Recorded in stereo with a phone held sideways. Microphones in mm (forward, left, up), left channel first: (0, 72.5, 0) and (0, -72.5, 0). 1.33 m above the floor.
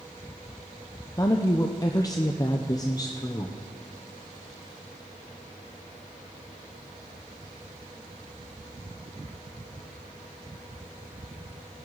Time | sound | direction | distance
1.2 | a woman speaking | 25° left (ahead or behind) | 0.6 m